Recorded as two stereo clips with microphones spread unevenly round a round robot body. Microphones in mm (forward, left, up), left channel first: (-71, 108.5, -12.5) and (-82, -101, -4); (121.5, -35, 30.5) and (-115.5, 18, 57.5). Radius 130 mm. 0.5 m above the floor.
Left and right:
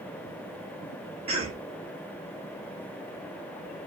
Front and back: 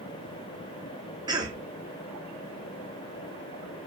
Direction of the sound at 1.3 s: 125° right.